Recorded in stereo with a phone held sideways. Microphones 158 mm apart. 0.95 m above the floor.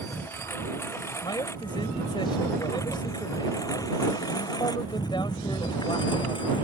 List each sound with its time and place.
0.0 s a lawn mower: 15° left (ahead or behind); by 6.7 s 30° left (ahead or behind)
1.2 s a man speaking: 30° left (ahead or behind)